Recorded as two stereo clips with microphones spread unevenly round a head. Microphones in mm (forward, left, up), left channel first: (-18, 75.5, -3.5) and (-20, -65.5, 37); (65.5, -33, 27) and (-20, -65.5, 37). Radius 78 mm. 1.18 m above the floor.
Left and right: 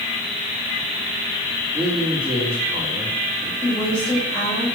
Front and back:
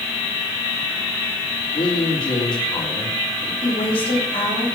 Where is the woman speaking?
15° left, 7 m.